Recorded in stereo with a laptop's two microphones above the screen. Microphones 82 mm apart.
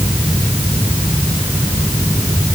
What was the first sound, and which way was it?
Only background noise.